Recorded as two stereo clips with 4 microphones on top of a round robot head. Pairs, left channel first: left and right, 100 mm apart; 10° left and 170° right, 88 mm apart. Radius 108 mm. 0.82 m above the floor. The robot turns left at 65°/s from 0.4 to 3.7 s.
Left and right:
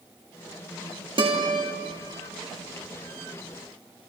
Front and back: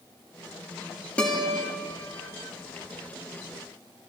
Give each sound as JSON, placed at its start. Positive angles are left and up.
{"t": 1.2, "sound": "a guitar", "azimuth_deg": -70, "distance_m": 2.0}